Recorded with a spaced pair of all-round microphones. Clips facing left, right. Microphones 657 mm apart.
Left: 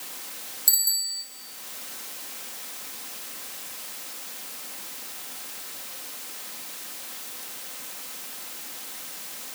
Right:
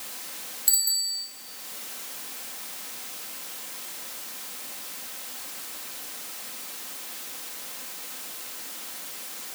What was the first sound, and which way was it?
A bicycle bell, 35° left (ahead or behind).